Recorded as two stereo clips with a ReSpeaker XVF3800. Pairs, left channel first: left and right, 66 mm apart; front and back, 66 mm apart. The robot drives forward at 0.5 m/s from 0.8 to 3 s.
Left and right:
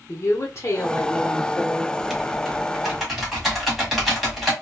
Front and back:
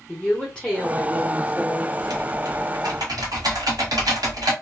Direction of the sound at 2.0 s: Straight behind.